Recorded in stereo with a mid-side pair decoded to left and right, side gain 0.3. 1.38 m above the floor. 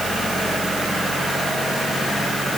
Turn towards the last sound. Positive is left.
No sound to turn to.